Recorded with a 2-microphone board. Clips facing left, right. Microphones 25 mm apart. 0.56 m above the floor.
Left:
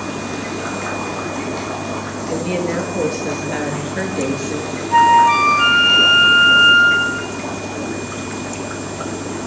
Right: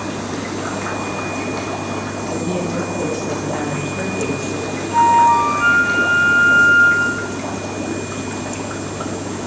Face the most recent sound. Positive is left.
turn(degrees=80)